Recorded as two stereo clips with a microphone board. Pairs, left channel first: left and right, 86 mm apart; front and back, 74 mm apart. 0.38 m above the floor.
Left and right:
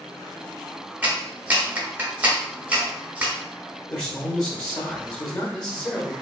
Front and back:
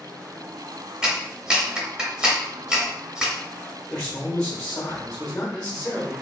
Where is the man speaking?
65° left, 0.9 m.